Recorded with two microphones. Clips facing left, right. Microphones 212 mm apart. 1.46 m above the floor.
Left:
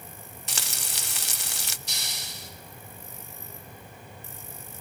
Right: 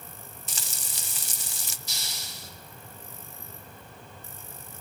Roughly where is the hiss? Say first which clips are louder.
Left 2 dB; left.